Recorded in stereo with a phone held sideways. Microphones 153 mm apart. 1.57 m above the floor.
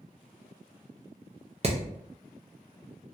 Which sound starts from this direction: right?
Hammering, at 1.6 s.